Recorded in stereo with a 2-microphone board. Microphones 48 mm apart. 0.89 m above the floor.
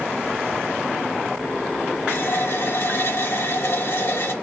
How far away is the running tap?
About 2.5 m.